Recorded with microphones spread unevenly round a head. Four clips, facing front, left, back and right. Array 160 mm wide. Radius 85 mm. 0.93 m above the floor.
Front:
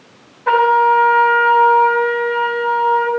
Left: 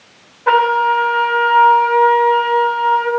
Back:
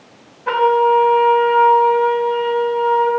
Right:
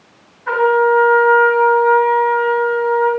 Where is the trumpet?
60° left, 4 m.